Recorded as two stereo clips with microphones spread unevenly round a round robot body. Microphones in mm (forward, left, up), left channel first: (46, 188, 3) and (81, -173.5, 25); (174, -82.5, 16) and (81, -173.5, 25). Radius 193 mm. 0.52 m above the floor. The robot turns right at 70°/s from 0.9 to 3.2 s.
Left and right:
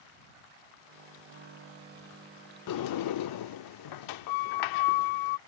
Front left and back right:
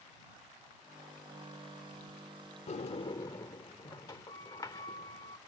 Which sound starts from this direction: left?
A sliding door, at 2.7 s.